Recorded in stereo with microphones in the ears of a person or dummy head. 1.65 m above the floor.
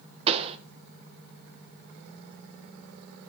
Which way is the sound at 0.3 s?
30° right (ahead or behind).